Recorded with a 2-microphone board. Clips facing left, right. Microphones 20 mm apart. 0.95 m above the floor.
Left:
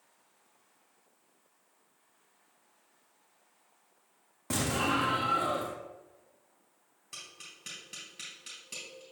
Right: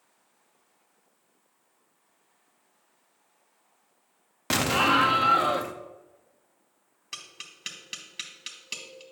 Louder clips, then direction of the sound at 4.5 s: Right 8 dB; 60° right (ahead or behind).